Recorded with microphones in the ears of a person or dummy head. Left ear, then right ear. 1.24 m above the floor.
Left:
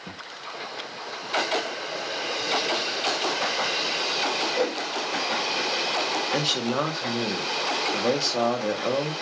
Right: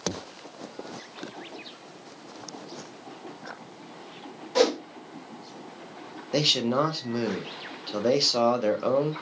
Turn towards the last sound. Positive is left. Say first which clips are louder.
# right 6 dB
turn(degrees=-5)  # may be behind; listen again after turning